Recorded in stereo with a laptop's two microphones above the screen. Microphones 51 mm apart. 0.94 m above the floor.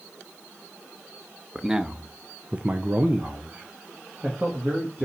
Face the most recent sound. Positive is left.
turn(degrees=-25)  # may be behind; listen again after turning